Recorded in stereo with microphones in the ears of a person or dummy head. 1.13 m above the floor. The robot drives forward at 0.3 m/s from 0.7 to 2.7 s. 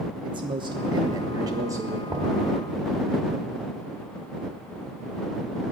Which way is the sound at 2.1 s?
15° right (ahead or behind).